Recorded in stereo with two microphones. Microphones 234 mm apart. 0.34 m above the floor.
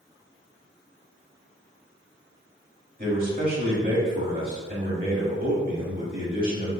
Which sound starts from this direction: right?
A man speaking, at 3.0 s.